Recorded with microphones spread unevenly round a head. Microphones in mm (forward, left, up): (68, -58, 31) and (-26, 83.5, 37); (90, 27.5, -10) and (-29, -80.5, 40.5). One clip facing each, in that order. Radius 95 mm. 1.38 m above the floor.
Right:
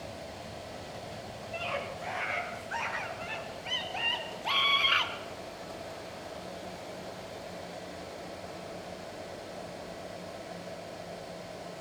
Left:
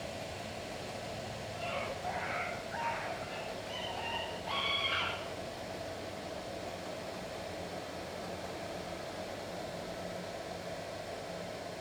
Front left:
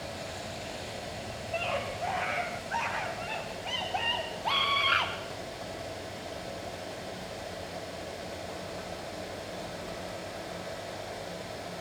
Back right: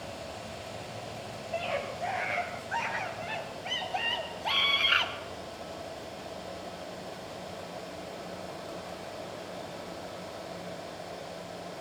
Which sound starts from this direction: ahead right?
A scream, at 1.5 s.